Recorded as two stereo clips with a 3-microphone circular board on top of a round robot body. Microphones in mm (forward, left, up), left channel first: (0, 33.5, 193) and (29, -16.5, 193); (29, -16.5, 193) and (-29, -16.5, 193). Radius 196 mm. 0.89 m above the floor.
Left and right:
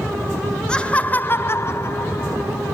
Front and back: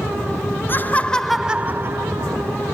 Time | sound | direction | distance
0.7 | laughter | 45° left | 1.1 m